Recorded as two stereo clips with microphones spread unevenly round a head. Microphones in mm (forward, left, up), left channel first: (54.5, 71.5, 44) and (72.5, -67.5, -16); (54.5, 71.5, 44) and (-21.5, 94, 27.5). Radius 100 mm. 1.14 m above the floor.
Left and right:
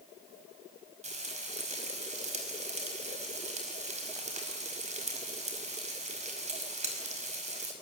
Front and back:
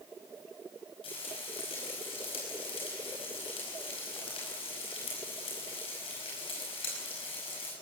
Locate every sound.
1.0 s frying: 45° right, 5 m